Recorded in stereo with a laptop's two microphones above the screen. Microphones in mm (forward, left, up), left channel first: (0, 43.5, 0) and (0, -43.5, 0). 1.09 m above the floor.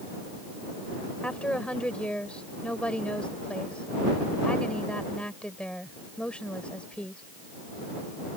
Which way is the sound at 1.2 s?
10° left (ahead or behind).